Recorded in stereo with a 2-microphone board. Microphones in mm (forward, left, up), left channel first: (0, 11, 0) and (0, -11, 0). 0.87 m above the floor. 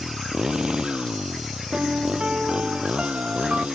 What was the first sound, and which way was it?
A motorcycle, 35° right (ahead or behind).